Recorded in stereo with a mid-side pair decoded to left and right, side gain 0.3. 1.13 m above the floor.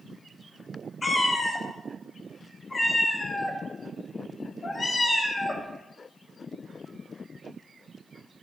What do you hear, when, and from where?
1.0 s a cat meowing: 45° left, 0.9 m